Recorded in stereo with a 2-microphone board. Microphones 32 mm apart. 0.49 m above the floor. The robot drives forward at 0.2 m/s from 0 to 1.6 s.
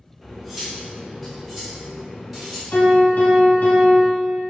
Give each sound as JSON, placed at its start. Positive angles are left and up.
{"t": 0.2, "sound": "cutlery clinking", "side_deg": 0, "distance_m": 0.5}
{"t": 2.7, "sound": "a piano", "side_deg": 80, "distance_m": 0.8}